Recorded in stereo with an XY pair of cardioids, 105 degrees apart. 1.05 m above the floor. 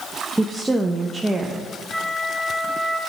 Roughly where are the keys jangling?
No keys jangling in this recording.